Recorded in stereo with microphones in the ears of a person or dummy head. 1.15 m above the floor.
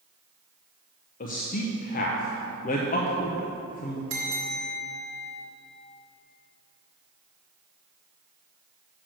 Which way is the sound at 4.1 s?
55° right (ahead or behind).